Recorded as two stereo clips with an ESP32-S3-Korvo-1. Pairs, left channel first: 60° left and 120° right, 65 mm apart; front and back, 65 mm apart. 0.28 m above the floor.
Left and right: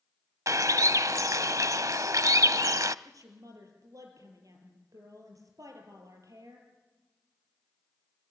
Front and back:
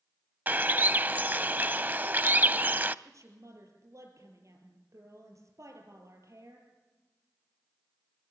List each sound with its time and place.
0.5 s a bird: 125° right, 0.6 m
3.0 s a woman speaking: 145° right, 6.5 m